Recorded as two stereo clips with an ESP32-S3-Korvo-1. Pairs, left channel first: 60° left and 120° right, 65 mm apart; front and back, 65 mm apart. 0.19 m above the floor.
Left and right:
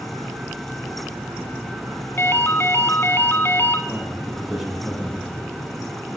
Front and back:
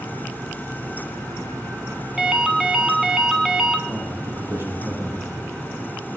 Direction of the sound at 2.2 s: 100° left.